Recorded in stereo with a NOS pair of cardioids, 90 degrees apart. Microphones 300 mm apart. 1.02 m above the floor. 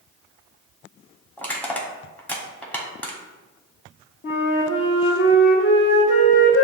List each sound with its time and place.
1.4 s crushing: 5° left, 1.2 m
4.2 s a flute: 45° left, 1.1 m